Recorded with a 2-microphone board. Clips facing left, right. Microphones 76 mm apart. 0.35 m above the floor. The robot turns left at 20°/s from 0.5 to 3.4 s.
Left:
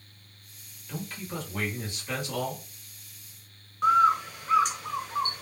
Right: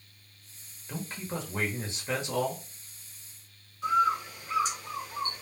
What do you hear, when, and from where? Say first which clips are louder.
0.9 s a man speaking: even; 25° right (ahead or behind), 1.0 m; by 2.6 s 30° right (ahead or behind), 1.0 m
3.8 s a bird: left 5 dB; 80° left, 0.6 m